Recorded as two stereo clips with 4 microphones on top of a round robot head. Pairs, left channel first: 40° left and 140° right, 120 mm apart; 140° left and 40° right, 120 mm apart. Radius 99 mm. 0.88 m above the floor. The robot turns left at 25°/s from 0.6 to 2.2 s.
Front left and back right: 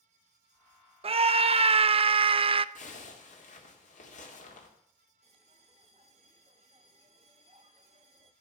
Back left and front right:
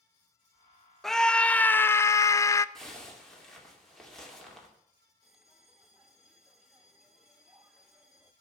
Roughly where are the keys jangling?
I don't hear keys jangling.